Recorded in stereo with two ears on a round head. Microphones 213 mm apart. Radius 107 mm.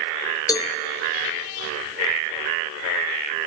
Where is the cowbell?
15° left (ahead or behind), 0.6 m.